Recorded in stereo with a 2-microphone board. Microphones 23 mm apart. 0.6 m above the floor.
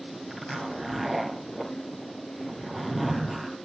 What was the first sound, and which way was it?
A zipper, centre (ahead or behind).